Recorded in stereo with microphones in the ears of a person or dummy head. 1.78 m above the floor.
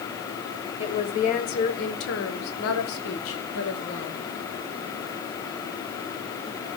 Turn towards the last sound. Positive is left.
turn(degrees=65)  # may be behind; listen again after turning